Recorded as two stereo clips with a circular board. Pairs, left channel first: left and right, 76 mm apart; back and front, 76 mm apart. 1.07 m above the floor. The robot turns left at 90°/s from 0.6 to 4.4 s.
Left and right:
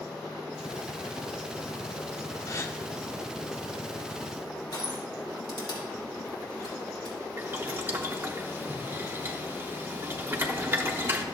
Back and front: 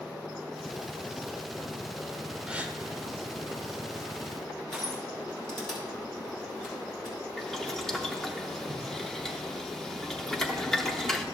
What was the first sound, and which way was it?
A gasp, 75° left.